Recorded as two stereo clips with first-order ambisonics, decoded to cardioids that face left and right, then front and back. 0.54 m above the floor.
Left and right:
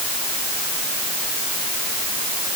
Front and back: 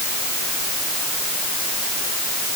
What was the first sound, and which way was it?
Only background noise.